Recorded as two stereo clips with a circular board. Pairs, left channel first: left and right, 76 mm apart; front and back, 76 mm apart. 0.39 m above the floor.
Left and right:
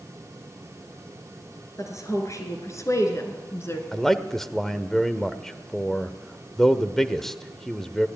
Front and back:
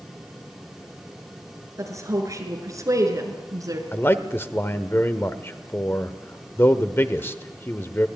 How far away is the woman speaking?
About 5.5 m.